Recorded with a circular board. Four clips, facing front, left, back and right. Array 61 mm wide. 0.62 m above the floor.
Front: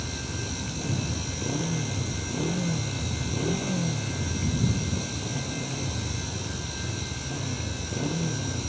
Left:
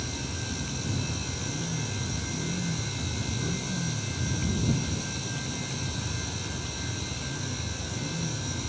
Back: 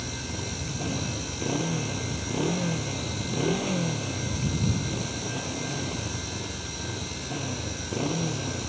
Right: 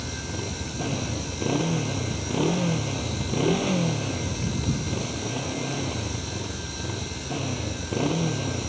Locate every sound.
0.0 s a motorcycle: 105° right